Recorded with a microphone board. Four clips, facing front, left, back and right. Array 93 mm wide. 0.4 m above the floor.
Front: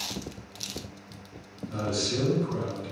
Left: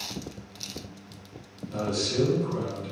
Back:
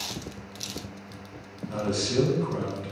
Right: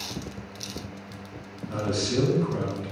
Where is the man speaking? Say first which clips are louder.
Right 2 dB, back 2 dB; 145° right, 2 m.